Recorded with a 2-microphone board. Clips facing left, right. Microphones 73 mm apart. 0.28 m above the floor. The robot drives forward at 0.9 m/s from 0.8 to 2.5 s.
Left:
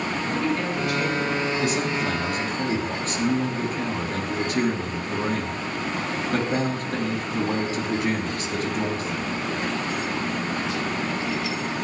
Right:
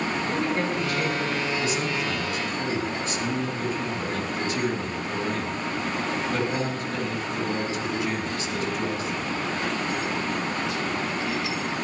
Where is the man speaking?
55° left (ahead or behind), 2.5 m.